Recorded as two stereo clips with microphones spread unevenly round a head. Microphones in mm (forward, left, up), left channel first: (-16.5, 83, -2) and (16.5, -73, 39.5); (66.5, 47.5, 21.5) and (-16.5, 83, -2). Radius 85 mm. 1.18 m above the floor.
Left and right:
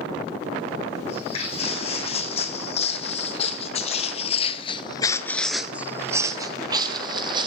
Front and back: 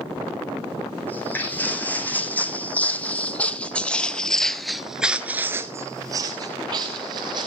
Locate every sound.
1.1 s footsteps: 45° left, 5.5 m; by 7.5 s 135° right, 3 m